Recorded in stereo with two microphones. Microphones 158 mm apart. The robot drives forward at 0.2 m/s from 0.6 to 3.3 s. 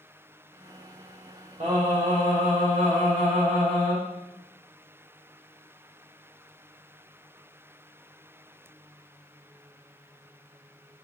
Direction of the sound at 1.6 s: 55° right (ahead or behind).